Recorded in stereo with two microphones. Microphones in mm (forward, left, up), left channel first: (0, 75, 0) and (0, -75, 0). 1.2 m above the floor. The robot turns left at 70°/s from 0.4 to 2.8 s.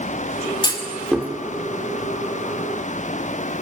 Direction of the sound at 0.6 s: 30° left (ahead or behind).